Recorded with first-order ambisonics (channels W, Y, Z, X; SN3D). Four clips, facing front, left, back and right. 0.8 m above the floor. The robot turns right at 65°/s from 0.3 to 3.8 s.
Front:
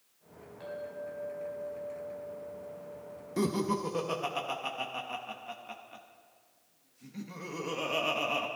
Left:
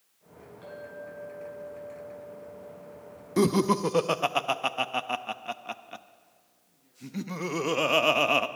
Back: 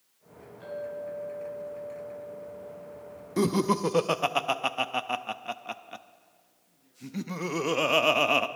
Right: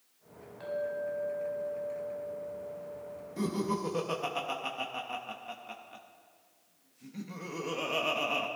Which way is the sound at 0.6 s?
60° right.